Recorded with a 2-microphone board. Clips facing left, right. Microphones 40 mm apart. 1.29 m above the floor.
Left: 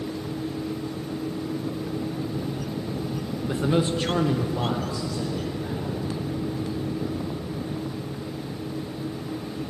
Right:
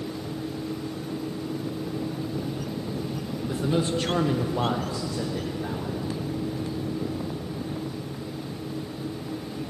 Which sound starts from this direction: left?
A man speaking, at 3.5 s.